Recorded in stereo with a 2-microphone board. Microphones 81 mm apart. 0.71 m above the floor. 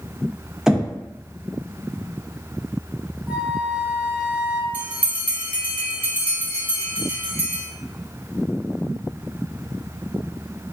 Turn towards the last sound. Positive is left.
turn(degrees=-20)  # may be behind; listen again after turning